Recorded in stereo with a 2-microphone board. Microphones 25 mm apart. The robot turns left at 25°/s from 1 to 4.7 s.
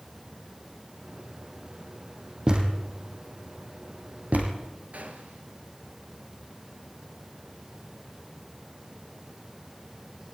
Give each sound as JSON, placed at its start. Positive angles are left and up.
{"t": 2.5, "sound": "a thud", "side_deg": -35, "distance_m": 4.0}
{"t": 4.9, "sound": "a gunshot", "side_deg": -80, "distance_m": 3.0}